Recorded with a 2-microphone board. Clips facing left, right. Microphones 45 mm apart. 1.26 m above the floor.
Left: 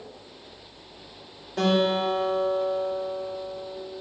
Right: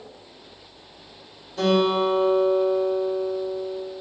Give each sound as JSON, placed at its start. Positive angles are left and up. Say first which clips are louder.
{"t": 1.6, "sound": "a guitar", "louder": "right 3 dB", "side_deg": 50, "distance_m": 3.5}